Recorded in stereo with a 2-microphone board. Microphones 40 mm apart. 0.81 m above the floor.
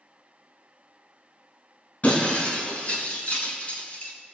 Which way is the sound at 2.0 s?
35° left (ahead or behind).